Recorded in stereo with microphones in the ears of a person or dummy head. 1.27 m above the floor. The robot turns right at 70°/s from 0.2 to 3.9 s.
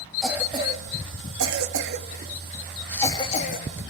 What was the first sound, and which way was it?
A cough, centre (ahead or behind).